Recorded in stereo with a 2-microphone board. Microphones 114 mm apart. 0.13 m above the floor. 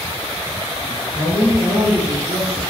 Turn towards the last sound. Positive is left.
turn(degrees=-25)  # may be behind; listen again after turning